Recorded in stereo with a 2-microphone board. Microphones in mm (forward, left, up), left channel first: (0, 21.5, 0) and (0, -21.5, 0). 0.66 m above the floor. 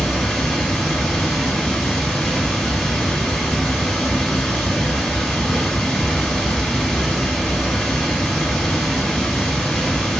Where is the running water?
5° left (ahead or behind), 0.8 m.